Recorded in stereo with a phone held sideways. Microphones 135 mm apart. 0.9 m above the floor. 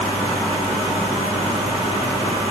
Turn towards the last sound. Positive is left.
No sound to turn to.